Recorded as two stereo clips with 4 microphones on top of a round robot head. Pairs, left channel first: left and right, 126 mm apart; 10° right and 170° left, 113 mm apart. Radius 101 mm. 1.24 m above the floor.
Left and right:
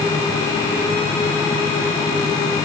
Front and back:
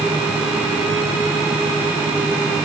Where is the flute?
No flute in this recording.